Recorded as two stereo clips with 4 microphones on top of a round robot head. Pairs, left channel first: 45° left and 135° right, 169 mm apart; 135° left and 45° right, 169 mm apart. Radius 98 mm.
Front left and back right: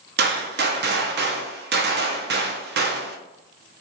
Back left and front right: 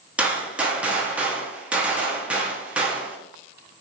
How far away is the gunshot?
About 0.6 m.